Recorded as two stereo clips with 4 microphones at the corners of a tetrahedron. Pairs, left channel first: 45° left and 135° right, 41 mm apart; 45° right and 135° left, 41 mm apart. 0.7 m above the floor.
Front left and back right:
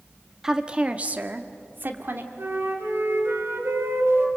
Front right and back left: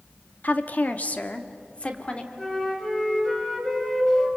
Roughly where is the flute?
Behind right.